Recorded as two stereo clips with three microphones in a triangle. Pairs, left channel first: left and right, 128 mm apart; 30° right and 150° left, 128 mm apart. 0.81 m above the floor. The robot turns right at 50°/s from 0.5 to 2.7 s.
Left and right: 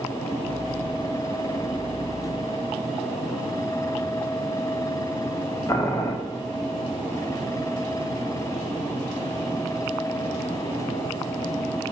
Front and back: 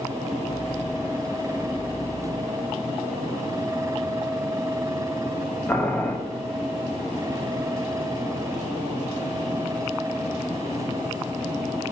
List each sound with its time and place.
5.7 s boiling: 40° left, 0.6 m